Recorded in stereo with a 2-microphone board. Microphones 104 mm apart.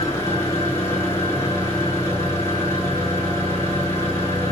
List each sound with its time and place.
0.0 s an engine running: 20° left (ahead or behind), 2 m